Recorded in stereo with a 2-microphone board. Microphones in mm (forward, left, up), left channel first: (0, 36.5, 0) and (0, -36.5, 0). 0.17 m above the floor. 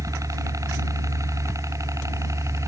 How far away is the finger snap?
I don't hear a finger snap.